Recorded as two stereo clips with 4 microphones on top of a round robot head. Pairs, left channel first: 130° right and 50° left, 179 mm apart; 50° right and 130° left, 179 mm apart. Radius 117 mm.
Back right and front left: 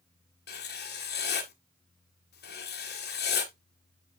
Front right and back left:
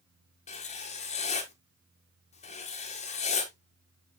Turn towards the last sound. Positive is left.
turn(degrees=-100)